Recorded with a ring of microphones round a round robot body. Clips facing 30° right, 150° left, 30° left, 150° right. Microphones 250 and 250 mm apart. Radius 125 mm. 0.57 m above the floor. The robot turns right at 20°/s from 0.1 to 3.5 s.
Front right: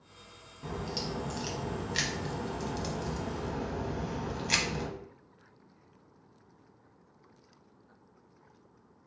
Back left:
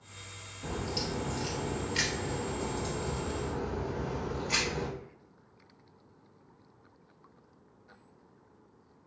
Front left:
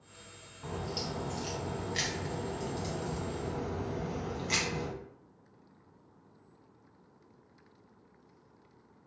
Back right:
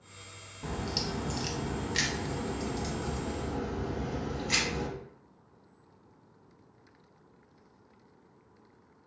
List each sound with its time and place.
0.6 s a crack: 110° right, 0.7 m; by 4.9 s 55° right, 0.7 m